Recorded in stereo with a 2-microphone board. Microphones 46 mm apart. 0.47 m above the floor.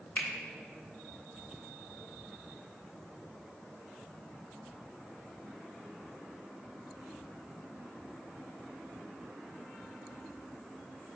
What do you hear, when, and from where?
0.2 s a finger snap: 40° left (ahead or behind), 0.6 m